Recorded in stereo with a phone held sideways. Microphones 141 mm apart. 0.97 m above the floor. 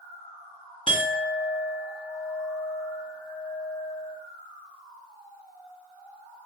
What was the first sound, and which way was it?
A clink, 35° left (ahead or behind).